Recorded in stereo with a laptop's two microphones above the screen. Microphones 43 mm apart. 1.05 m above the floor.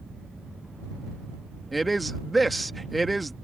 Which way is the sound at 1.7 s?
Centre (ahead or behind).